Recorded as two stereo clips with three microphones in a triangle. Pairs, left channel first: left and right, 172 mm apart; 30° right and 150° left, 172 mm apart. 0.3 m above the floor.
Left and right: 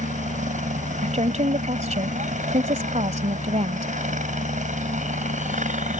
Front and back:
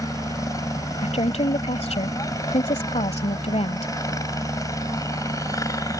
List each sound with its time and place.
0.0 s a helicopter: 90° right
1.0 s a woman speaking: 65° right